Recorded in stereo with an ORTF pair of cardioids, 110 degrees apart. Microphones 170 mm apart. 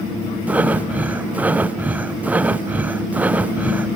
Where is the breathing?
10° right, 0.5 m.